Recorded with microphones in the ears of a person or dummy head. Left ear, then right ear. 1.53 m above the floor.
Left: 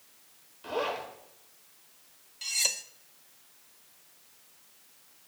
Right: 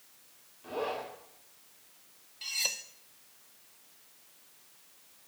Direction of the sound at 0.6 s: 60° left (ahead or behind).